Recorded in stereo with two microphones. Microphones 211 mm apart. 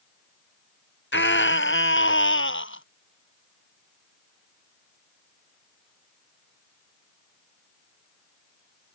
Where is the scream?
65° left (ahead or behind); by 2.8 s 70° left (ahead or behind).